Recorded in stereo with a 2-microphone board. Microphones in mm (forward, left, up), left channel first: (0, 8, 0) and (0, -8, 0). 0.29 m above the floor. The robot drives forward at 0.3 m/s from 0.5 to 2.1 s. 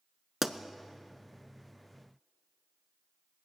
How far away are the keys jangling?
No keys jangling in this recording.